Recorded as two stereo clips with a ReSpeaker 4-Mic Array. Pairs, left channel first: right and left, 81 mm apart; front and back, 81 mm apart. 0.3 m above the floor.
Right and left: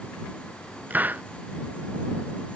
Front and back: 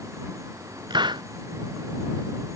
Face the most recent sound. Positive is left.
turn(degrees=160)